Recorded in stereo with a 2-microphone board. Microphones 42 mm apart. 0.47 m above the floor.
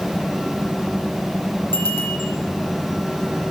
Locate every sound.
1.7 s a bicycle bell: 65° left (ahead or behind), 9.5 m